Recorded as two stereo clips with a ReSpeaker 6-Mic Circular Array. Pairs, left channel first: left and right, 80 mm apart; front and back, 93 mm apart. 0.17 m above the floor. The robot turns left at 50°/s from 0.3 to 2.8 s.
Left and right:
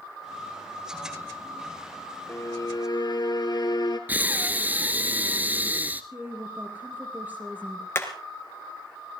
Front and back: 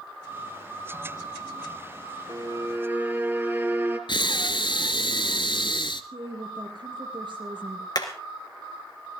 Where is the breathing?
20° right, 1.0 m.